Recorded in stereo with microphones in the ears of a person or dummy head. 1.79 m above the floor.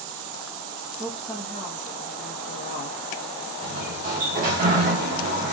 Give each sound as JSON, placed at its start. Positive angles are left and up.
{"t": 1.0, "sound": "a woman speaking", "side_deg": -20, "distance_m": 0.9}
{"t": 3.6, "sound": "a sliding door", "side_deg": -40, "distance_m": 1.0}